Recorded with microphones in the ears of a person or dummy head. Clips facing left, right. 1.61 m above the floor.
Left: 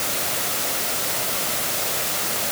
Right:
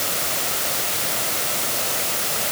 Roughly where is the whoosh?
No whoosh in this recording.